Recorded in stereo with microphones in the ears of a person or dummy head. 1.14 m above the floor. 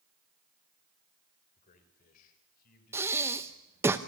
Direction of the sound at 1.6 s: 50° left (ahead or behind).